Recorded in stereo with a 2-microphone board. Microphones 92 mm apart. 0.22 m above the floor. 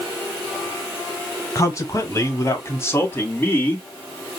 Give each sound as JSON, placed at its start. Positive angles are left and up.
{"t": 1.6, "sound": "a man speaking", "side_deg": 35, "distance_m": 1.5}